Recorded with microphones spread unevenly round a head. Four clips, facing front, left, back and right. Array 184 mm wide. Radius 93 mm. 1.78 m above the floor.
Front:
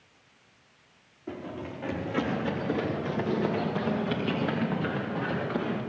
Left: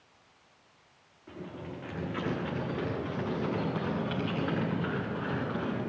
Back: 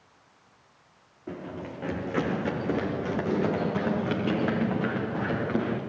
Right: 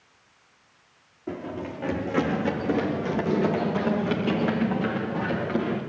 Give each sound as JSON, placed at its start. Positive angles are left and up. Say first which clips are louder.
{"t": 1.3, "sound": "running footsteps", "louder": "right 9 dB, even", "azimuth_deg": -105, "distance_m": 5.0}